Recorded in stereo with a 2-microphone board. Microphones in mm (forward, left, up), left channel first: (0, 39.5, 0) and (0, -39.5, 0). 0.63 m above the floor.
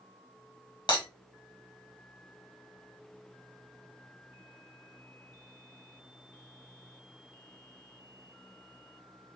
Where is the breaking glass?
75° left (ahead or behind), 1.6 m.